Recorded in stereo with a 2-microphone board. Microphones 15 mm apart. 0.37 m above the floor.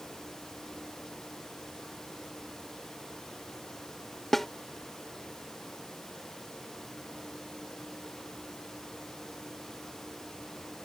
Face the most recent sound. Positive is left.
turn(degrees=15)  # may be behind; listen again after turning